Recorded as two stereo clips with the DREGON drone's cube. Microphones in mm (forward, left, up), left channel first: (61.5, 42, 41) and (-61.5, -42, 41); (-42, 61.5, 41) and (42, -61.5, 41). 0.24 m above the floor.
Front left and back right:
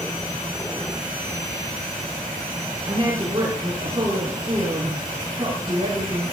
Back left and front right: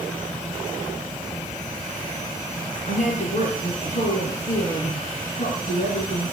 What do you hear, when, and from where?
2.9 s a woman speaking: 155° left, 3.5 m